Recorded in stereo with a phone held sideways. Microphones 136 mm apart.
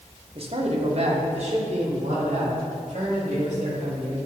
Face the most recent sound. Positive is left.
turn(degrees=-60)  # may be behind; listen again after turning